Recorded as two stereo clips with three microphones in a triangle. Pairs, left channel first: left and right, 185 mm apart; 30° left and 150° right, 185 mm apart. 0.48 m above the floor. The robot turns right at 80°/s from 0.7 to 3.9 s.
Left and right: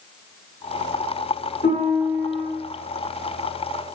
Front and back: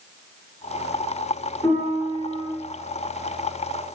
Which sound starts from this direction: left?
A piano, at 1.6 s.